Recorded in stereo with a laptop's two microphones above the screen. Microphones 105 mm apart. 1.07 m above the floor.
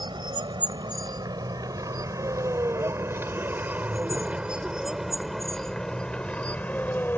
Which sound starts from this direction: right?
A vehicle, at 0.0 s.